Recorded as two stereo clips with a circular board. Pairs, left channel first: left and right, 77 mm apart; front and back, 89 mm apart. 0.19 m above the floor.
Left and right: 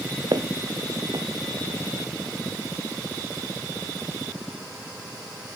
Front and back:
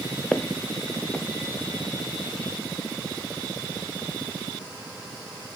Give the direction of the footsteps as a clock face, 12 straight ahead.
3 o'clock.